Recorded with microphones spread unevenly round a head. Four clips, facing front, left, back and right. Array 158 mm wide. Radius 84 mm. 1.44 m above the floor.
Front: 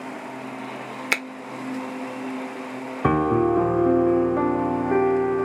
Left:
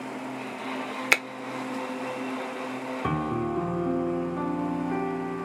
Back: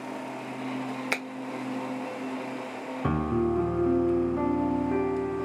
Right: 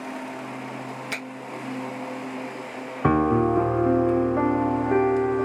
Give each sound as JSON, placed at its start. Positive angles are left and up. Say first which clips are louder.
{"t": 1.1, "sound": "a finger snap", "louder": "left 12 dB, front 7 dB", "azimuth_deg": 35, "distance_m": 0.6}
{"t": 3.0, "sound": "a piano", "louder": "right 10 dB, front 7 dB", "azimuth_deg": -40, "distance_m": 0.6}